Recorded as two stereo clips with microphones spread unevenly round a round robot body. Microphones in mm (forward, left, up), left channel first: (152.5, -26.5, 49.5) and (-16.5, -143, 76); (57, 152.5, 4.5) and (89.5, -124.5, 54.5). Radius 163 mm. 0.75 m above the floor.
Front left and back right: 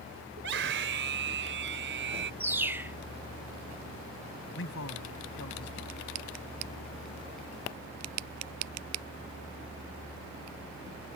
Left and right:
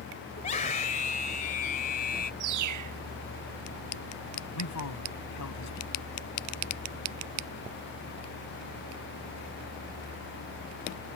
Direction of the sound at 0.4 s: 170° left.